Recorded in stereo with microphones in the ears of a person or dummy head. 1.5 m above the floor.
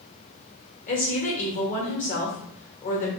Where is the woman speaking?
40° left (ahead or behind), 1.6 m.